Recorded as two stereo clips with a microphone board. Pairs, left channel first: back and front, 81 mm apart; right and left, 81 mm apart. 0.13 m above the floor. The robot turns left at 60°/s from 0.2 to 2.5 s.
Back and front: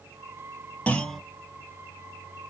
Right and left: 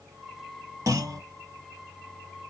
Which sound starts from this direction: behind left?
A clunk, at 0.9 s.